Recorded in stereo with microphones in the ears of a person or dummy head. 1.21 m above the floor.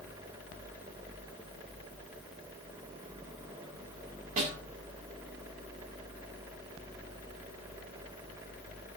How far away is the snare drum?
About 5.5 m.